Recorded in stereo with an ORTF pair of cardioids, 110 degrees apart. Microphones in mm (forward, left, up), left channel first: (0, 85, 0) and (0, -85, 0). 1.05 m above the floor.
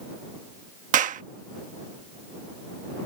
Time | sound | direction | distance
0.9 | a clap | 50° right | ?